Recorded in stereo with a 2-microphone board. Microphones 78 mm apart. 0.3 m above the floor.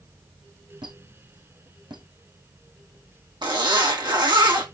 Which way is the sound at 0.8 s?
75° right (ahead or behind).